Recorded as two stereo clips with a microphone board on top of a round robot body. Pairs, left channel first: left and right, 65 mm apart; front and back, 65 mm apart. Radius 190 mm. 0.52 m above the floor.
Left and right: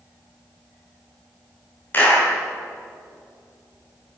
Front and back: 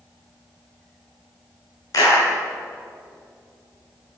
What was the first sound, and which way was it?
A clap, 30° left.